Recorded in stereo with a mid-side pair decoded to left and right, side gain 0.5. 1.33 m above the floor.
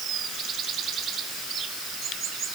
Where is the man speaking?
I don't hear a man speaking.